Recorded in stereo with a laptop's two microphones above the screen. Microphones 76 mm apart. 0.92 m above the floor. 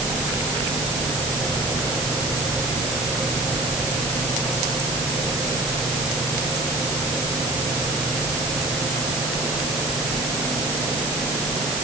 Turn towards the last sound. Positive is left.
No sound to turn to.